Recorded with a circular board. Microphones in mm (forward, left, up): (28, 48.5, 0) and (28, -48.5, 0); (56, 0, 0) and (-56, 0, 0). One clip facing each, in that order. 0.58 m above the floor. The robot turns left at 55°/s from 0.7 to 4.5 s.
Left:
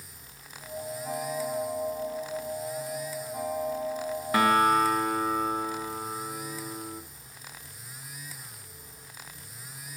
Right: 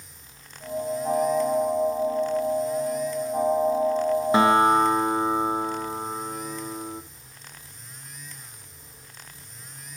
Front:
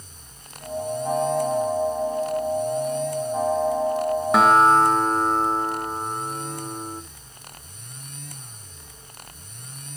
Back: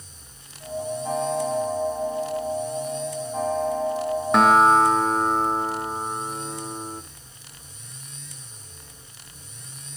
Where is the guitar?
85° right, 0.6 m; by 7.0 s 95° right, 0.6 m.